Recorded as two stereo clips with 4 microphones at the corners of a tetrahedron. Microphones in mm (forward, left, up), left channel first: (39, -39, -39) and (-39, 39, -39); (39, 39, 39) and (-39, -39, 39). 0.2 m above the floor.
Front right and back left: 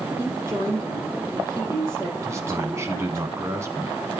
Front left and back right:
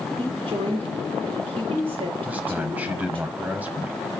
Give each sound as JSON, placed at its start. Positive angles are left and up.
{"t": 0.2, "sound": "a woman speaking", "azimuth_deg": -160, "distance_m": 5.5}
{"t": 2.2, "sound": "a man speaking", "azimuth_deg": 165, "distance_m": 1.4}